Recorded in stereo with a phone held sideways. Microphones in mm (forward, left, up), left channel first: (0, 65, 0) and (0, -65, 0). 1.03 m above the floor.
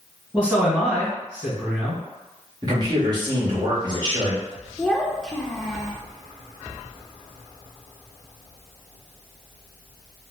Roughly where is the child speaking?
Centre.